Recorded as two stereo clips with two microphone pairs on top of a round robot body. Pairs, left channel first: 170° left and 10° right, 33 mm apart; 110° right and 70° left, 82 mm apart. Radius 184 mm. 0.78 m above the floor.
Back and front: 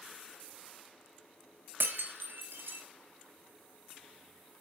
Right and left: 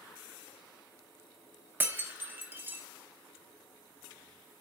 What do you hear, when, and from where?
1.8 s breaking glass: 5° left, 0.8 m